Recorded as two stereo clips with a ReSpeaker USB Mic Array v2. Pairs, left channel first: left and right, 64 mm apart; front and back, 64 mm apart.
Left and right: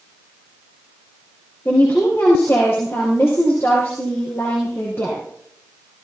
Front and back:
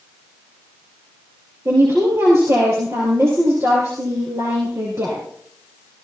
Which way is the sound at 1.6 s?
140° left.